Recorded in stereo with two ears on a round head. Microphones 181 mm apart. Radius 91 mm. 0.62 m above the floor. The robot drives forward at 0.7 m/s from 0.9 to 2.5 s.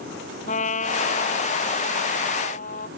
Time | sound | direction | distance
0.5 | a trumpet | 35° left (ahead or behind) | ?